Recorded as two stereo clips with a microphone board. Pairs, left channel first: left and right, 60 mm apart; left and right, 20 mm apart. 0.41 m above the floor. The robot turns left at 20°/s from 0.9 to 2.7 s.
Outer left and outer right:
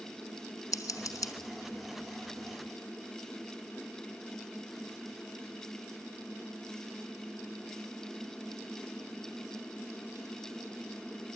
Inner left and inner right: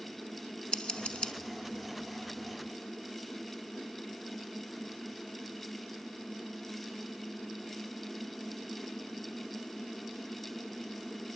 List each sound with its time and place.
0.7 s scissors: 80° left, 1.3 m; by 1.3 s 85° left, 1.3 m